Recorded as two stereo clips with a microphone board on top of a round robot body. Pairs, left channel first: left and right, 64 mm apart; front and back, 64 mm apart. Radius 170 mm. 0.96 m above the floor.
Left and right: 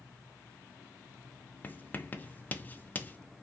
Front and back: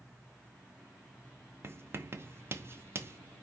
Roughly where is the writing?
Behind left.